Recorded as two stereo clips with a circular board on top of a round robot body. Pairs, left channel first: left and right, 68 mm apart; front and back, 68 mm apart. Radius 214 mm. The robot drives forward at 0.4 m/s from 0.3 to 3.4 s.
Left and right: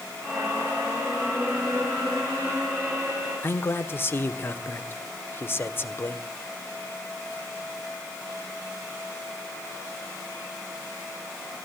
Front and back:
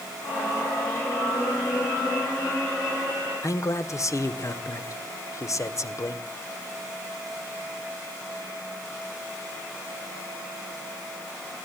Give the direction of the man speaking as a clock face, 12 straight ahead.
11 o'clock.